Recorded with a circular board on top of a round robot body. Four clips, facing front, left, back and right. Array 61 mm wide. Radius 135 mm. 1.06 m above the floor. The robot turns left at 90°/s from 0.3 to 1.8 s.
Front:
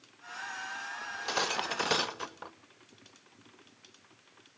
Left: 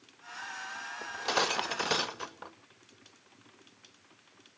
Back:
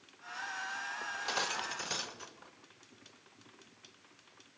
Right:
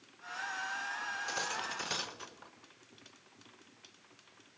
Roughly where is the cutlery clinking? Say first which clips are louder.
Left 6 dB, front 4 dB; left.